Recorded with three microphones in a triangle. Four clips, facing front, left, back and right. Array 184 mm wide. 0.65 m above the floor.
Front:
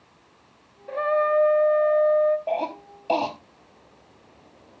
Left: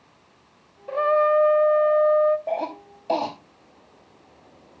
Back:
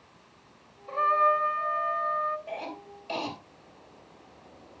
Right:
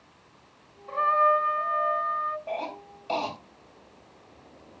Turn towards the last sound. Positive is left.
turn(degrees=40)